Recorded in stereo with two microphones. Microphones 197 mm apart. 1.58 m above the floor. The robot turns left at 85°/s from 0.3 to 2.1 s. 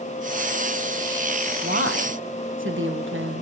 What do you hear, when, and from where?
1.6 s a woman speaking: 50° right, 1.5 m; by 3.4 s 90° right, 1.5 m